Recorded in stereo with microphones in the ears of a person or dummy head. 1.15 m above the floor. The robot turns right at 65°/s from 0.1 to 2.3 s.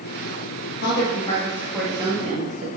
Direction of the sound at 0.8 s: 65° left (ahead or behind).